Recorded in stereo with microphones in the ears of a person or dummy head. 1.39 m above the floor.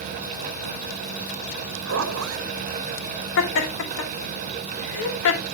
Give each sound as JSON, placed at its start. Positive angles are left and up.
{"t": 1.9, "sound": "a zipper", "side_deg": -85, "distance_m": 0.9}
{"t": 3.4, "sound": "laughter", "side_deg": 70, "distance_m": 3.0}